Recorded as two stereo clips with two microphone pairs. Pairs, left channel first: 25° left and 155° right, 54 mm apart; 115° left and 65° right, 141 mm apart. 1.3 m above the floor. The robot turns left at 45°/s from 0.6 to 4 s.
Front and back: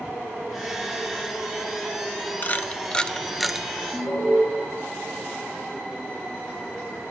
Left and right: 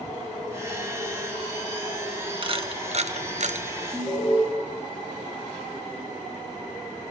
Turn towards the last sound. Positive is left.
turn(degrees=45)